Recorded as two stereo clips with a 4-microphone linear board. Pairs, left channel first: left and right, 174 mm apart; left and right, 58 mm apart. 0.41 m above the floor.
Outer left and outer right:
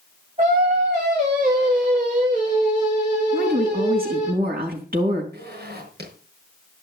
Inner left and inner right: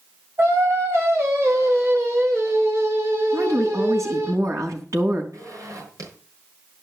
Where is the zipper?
75° right (ahead or behind), 6.5 m.